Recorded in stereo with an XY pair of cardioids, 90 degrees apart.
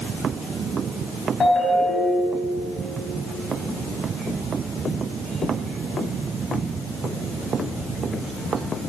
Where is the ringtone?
40° left, 4 m.